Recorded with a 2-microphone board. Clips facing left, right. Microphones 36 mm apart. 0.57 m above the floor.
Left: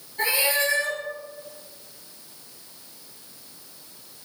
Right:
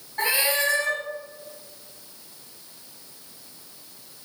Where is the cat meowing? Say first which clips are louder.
Even; 85° right, 1.5 m.